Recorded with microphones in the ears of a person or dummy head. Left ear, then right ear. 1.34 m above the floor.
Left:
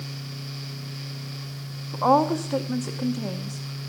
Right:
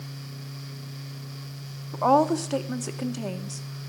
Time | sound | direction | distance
1.9 | a woman speaking | 15° right (ahead or behind) | 0.7 m